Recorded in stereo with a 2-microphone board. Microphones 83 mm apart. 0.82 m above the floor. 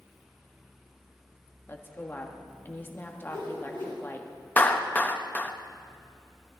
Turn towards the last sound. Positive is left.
turn(degrees=20)  # may be behind; listen again after turning